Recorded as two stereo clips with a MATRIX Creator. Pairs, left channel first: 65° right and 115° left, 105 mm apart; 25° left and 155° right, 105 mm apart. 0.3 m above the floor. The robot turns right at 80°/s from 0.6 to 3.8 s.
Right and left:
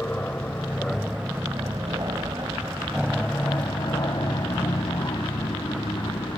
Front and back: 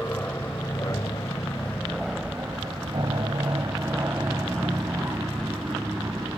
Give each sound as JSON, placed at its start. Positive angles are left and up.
{"t": 0.0, "sound": "an aircraft", "azimuth_deg": -20}